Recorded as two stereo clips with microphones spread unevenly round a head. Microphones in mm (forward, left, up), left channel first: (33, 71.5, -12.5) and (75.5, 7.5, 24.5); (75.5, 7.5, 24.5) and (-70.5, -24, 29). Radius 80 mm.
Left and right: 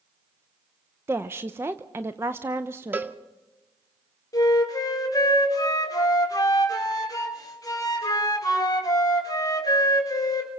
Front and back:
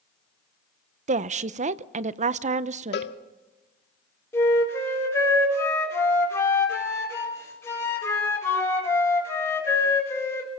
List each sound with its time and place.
1.1 s a woman speaking: 140° right, 0.7 m
2.9 s a cowbell: 5° right, 1.1 m
4.3 s a flute: 85° left, 4 m